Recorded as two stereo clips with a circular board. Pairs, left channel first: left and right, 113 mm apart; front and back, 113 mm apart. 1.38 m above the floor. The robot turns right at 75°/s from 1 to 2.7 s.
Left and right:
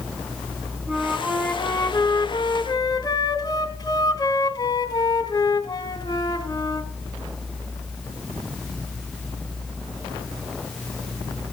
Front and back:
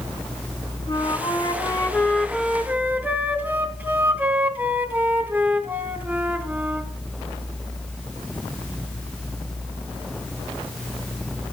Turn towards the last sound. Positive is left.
turn(degrees=110)